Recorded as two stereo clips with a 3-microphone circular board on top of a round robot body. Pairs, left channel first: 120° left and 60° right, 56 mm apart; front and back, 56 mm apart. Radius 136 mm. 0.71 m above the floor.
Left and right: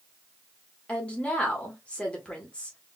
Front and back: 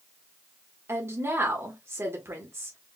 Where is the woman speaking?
175° right, 1.3 m.